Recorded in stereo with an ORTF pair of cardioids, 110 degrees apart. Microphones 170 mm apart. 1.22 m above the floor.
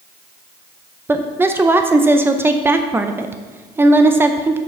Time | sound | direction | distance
1.1 | a woman speaking | 15° right | 0.5 m